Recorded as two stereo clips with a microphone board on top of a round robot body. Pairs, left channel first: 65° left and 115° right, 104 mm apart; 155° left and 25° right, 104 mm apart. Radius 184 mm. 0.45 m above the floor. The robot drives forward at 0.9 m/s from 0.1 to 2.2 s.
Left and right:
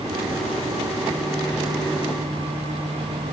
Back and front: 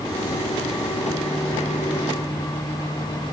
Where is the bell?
I don't hear a bell.